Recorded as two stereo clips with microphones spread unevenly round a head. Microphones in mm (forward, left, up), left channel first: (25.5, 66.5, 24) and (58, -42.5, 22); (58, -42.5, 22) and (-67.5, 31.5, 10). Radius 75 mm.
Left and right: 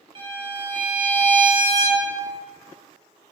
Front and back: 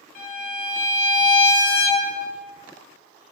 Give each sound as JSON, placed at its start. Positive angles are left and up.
{"t": 0.1, "sound": "a violin", "azimuth_deg": -40, "distance_m": 0.9}